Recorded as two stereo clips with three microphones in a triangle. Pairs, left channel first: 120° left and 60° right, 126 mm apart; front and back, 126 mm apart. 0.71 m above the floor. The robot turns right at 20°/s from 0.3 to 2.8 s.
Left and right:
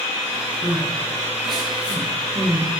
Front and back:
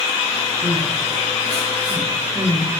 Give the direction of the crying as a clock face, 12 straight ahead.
5 o'clock.